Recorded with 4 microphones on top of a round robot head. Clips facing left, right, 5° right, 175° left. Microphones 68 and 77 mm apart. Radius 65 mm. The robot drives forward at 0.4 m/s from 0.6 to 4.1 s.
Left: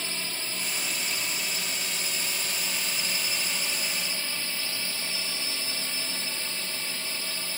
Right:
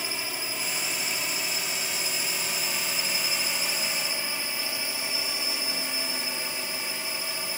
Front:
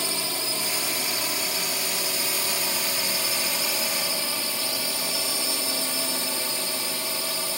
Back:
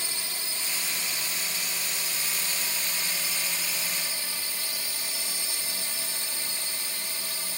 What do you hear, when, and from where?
0.0 s a drone: 10° right